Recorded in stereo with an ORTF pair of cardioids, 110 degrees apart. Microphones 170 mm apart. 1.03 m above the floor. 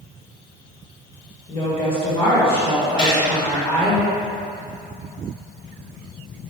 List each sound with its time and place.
1.5 s a woman speaking: 35° left, 1.5 m
3.0 s a gunshot: 40° left, 2.0 m